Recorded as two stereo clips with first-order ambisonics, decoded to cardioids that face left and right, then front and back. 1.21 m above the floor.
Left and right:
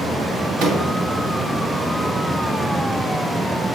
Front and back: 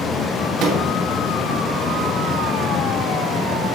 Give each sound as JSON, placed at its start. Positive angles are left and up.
{"t": 0.6, "sound": "a microwave", "azimuth_deg": -135, "distance_m": 1.8}